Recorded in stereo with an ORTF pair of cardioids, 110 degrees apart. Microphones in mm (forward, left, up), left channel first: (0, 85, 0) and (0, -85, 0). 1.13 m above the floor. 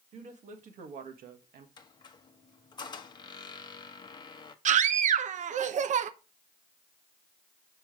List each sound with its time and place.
0.1 s a woman speaking: 45° right, 1.9 m; by 1.7 s 75° right, 1.4 m
1.8 s a squeak: 25° left, 1.0 m
4.7 s a scream: 50° right, 0.8 m